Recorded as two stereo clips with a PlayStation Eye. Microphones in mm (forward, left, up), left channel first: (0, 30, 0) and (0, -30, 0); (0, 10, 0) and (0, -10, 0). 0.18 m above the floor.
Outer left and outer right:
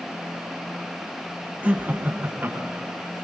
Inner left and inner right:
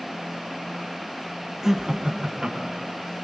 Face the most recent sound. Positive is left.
turn(degrees=-40)  # may be behind; listen again after turning